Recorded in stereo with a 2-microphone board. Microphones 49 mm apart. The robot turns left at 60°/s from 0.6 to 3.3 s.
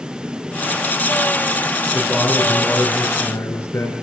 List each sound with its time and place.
1.9 s a man speaking: straight behind, 5 m; by 3.9 s 100° left, 5 m